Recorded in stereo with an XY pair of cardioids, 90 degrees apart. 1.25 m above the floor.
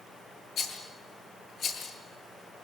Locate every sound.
0.6 s a rattle: 70° left, 8 m